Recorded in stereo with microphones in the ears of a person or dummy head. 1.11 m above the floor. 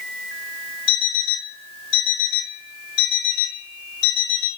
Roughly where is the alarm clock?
Left.